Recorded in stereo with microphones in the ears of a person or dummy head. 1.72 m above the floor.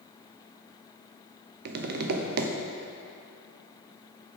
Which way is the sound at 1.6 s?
60° right (ahead or behind).